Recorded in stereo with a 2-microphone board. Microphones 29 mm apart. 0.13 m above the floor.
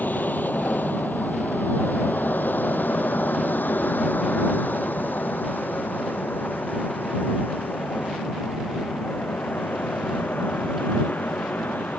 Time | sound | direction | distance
0.0 | an aircraft | 65° left (ahead or behind) | ?